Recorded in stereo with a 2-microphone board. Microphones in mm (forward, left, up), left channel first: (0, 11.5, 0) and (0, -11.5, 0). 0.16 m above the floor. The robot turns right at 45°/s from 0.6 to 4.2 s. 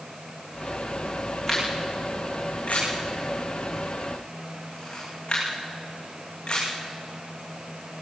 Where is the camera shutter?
20° left (ahead or behind), 7 m; by 6.7 s 40° left (ahead or behind), 7 m.